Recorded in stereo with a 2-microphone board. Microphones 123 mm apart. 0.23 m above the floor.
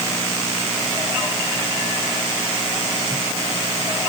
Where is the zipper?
No zipper in this recording.